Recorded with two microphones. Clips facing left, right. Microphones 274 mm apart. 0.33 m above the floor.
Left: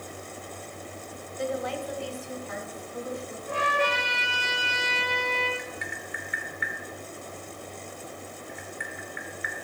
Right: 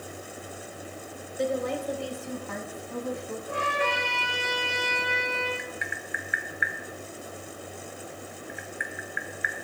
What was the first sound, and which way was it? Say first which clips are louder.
A woman speaking: right 3 dB; 45° right (ahead or behind).